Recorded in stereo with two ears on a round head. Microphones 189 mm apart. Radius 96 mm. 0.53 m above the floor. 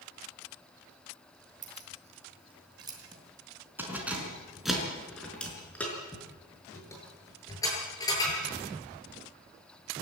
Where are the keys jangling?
40° right (ahead or behind), 4 m; by 8.4 s 20° left (ahead or behind), 8 m.